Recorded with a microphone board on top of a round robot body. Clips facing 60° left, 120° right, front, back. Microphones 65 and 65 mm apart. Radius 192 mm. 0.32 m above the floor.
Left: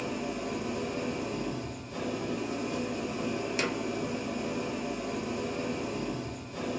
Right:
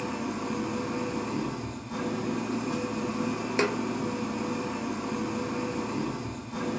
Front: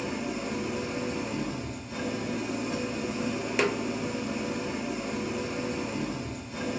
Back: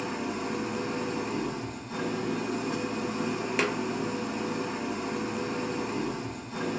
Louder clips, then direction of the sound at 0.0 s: Right 2 dB, even; 130° right.